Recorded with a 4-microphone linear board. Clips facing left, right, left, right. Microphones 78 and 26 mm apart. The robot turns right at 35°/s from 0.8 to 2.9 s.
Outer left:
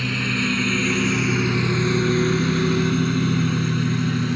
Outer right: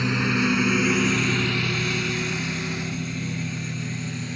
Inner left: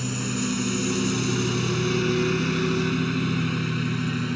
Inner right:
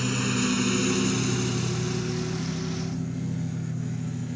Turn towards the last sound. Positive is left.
turn(degrees=60)  # may be behind; listen again after turning